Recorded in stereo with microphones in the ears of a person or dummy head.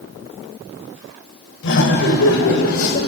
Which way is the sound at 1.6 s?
75° left (ahead or behind).